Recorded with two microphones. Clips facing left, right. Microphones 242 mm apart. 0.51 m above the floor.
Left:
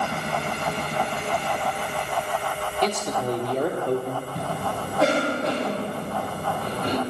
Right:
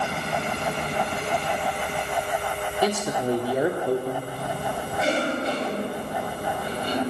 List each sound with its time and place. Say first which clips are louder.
2.8 s a man speaking: right 1 dB; 10° right (ahead or behind), 1.1 m
4.3 s a cough: left 1 dB; 70° left (ahead or behind), 2.5 m